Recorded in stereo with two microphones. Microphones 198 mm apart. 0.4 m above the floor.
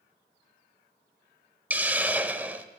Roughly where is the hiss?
Centre.